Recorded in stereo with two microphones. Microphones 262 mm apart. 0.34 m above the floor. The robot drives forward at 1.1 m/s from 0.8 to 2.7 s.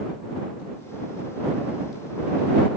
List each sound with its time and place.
Only background noise.